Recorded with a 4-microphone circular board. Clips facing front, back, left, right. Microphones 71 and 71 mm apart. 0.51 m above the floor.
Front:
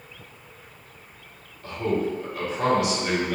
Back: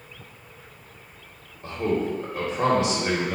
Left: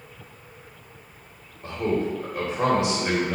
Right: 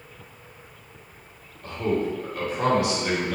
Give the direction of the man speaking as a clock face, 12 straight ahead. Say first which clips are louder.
Even, even; 7 o'clock.